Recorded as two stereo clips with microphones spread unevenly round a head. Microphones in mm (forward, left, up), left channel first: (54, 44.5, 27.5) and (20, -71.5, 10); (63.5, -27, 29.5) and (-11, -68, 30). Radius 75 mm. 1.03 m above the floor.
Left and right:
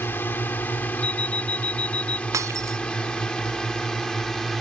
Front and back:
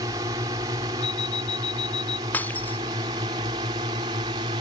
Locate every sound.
0.0 s a drone: 150° left; by 4.6 s 160° left
1.0 s an alarm clock: 45° left
2.3 s breaking glass: 40° right